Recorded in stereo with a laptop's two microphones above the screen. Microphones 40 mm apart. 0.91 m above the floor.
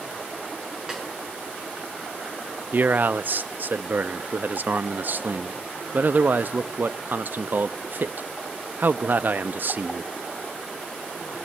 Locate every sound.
0.9 s a snare drum: 15° right (ahead or behind), 8 m
2.7 s a man speaking: 50° right (ahead or behind), 0.8 m